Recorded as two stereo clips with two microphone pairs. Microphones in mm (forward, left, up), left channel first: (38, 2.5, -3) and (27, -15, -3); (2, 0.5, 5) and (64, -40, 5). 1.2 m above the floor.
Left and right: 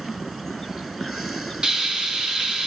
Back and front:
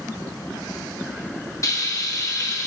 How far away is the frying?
About 2.5 m.